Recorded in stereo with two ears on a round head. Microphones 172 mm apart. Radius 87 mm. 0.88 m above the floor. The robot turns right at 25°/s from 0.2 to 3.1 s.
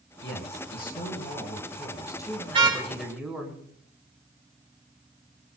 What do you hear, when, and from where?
0.2 s a man speaking: 110° left, 9 m; by 3.5 s 175° right, 9 m
2.5 s a car horn: 30° right (ahead or behind), 5 m; by 2.8 s 20° right (ahead or behind), 5 m